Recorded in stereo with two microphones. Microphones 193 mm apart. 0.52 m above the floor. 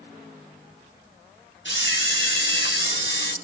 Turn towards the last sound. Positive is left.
turn(degrees=80)